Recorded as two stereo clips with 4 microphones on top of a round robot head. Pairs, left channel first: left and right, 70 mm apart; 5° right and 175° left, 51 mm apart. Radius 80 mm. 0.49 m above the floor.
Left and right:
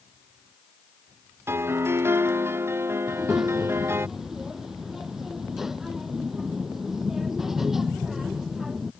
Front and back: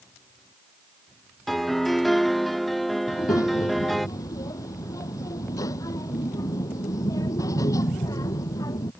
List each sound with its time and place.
1.5 s a piano: 90° right
3.1 s a child speaking: 5° right